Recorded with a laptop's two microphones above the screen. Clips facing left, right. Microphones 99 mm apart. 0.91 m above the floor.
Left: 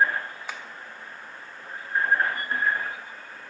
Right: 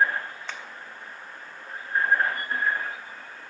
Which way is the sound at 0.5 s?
10° left (ahead or behind).